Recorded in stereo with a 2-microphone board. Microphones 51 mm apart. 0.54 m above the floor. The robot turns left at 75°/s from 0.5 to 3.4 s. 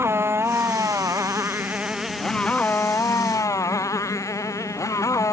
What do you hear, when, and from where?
0.0 s a motorcycle: 55° right; by 5.3 s 90° left